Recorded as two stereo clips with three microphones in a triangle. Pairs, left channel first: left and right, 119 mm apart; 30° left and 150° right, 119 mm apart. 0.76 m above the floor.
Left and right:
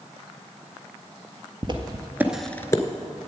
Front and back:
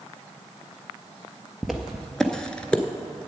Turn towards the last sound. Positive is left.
turn(degrees=100)